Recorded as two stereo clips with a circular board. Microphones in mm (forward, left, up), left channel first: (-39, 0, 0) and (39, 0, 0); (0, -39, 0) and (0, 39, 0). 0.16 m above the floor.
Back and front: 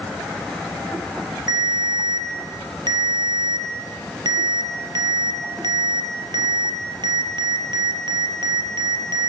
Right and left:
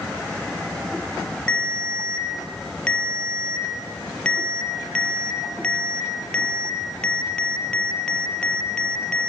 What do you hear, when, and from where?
1.5 s a ringtone: 15° right, 2 m